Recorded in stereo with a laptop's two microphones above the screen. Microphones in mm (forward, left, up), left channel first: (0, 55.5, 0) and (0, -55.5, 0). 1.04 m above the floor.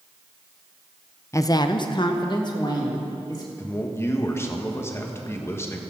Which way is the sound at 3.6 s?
25° left (ahead or behind).